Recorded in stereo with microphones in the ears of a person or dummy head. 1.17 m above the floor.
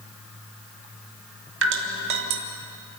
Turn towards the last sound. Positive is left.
turn(degrees=-65)  # may be behind; listen again after turning